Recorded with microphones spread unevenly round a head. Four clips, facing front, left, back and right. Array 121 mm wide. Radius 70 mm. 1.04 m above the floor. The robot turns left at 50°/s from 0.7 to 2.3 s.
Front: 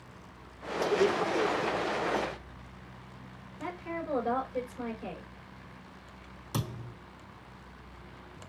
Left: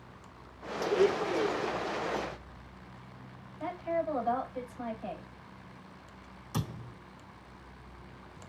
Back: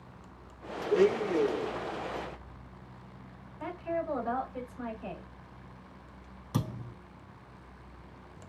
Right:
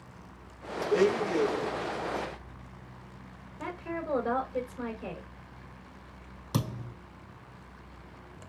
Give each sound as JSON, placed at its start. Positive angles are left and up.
{"t": 0.9, "sound": "a blender", "azimuth_deg": -95, "distance_m": 1.2}
{"t": 3.6, "sound": "a woman speaking", "azimuth_deg": -75, "distance_m": 3.0}
{"t": 6.5, "sound": "a thud", "azimuth_deg": -85, "distance_m": 2.5}